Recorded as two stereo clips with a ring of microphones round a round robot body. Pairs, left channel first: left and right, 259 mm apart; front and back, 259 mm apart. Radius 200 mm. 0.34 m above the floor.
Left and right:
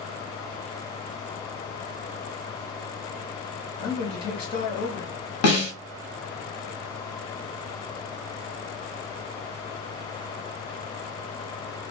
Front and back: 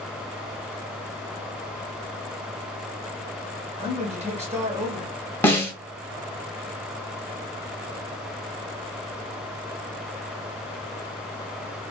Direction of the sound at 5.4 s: 80° left.